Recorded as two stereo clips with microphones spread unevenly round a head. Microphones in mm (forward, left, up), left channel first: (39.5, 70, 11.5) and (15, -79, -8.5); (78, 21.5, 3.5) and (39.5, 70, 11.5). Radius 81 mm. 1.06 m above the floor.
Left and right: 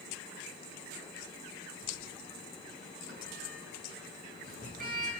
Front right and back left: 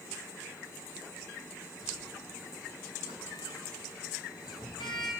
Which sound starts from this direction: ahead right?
A sliding door, at 1.8 s.